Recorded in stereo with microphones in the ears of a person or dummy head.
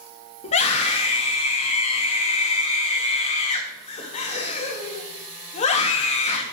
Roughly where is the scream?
Left.